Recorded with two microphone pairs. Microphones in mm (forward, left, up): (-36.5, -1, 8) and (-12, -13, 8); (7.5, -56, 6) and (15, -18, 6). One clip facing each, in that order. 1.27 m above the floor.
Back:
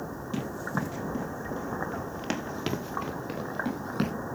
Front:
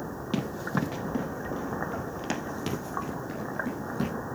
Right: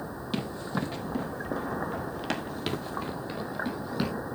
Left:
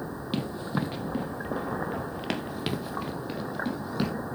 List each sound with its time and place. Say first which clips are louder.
0.3 s running footsteps: front 2 dB, left 2 dB; straight ahead, 2.0 m; by 4.1 s 165° left, 2 m